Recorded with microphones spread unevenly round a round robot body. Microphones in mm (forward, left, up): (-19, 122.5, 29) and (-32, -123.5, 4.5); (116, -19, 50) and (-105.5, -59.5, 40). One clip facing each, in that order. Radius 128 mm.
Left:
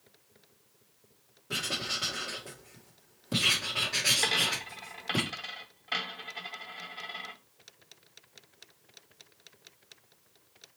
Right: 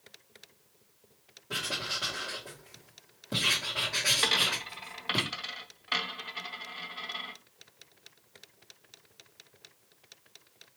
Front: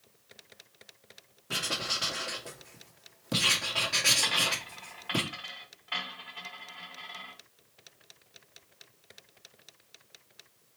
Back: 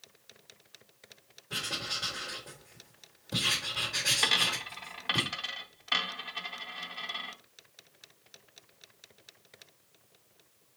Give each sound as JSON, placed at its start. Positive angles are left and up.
{"t": 1.5, "sound": "writing", "azimuth_deg": 10, "distance_m": 1.5}
{"t": 4.2, "sound": "a dropped coin", "azimuth_deg": -170, "distance_m": 0.6}